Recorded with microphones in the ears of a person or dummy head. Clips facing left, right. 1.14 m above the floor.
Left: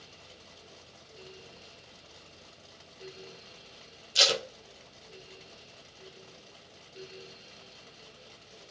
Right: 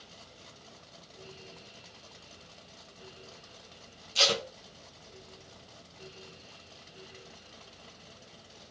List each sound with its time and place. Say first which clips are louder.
4.2 s tape being pulled: even; 15° left (ahead or behind), 0.7 m